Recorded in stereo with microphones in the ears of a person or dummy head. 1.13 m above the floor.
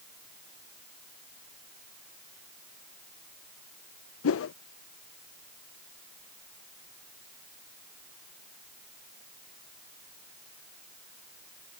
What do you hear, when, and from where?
4.2 s a whoosh: 65° left (ahead or behind)